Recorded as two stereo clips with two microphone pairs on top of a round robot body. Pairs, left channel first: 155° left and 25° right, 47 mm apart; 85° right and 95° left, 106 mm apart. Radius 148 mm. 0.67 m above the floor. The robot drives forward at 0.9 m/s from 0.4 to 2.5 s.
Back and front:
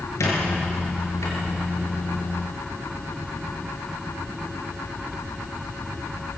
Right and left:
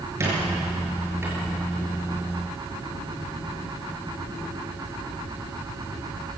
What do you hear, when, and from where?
0.2 s a squeak: 160° left, 5.5 m